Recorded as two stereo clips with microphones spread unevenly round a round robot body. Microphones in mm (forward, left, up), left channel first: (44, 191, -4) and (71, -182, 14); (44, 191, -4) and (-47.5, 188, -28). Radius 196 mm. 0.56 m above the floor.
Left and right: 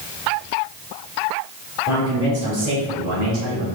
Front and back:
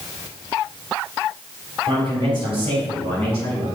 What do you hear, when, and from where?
1.9 s a man speaking: 170° right, 2.5 m; by 3.6 s 145° right, 4 m